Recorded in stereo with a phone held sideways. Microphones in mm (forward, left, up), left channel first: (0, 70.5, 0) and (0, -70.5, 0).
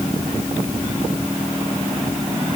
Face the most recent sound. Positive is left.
No sound to turn to.